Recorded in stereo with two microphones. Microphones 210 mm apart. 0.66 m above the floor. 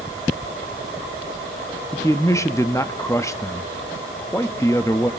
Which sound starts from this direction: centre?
A man speaking, at 1.9 s.